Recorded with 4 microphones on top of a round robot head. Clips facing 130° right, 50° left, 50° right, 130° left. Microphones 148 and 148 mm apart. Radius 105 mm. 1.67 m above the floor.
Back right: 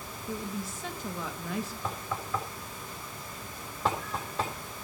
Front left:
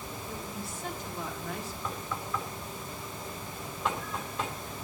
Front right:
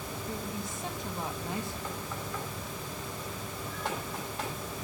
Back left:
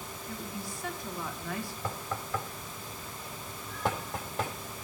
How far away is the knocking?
About 3.5 m.